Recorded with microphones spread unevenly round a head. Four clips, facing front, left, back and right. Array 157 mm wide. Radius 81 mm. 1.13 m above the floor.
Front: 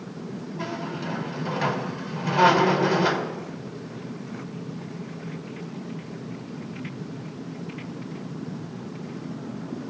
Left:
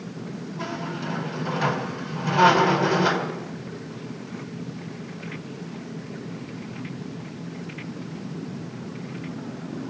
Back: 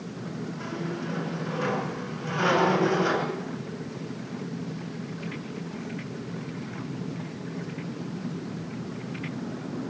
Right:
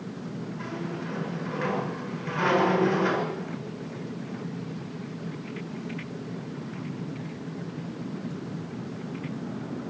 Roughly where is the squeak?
Ahead left.